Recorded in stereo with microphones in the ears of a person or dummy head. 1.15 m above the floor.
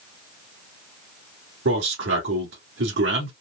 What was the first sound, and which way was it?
A man speaking, 65° right (ahead or behind).